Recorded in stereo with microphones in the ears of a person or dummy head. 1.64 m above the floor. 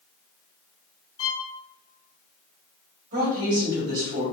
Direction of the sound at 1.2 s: 30° left (ahead or behind).